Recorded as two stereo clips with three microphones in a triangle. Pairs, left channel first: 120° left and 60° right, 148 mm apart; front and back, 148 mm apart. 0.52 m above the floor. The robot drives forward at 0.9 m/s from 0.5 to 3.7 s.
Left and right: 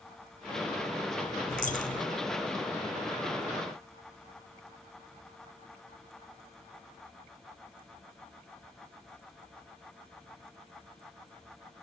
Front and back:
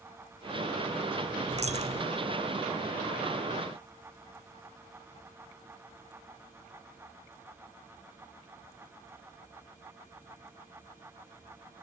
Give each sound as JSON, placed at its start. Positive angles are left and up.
{"t": 1.5, "sound": "a dropped coin", "azimuth_deg": 140, "distance_m": 2.0}